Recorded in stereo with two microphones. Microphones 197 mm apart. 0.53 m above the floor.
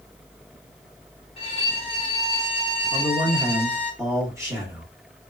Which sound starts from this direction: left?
A violin, at 1.4 s.